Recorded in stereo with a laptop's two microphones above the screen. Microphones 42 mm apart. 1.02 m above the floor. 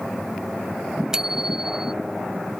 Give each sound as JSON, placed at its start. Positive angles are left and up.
{"t": 1.1, "sound": "a bicycle bell", "side_deg": -10}